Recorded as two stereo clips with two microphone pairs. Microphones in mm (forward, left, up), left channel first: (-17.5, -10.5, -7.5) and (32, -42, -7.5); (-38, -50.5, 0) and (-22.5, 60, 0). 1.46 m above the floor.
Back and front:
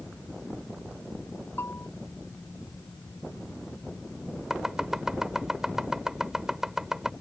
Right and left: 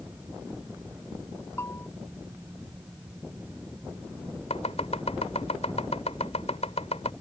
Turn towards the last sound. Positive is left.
turn(degrees=-115)